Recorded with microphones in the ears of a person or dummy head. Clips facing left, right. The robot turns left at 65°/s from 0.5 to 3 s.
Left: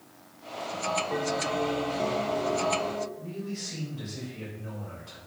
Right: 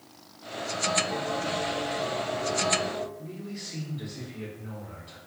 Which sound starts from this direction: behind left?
A bell, at 1.1 s.